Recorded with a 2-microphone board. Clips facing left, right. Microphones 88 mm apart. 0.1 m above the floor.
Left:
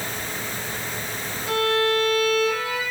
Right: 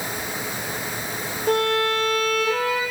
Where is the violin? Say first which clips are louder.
Right 1 dB; 55° right (ahead or behind), 1.0 m.